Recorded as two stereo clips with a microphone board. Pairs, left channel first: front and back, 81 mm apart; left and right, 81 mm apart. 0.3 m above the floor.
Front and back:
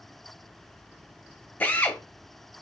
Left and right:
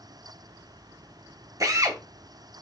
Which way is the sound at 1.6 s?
60° right.